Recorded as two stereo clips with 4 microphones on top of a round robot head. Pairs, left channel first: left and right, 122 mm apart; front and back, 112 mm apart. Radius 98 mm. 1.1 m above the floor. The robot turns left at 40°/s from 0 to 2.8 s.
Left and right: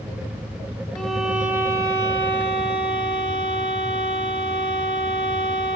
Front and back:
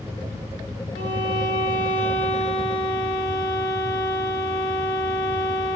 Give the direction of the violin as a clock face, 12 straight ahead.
12 o'clock.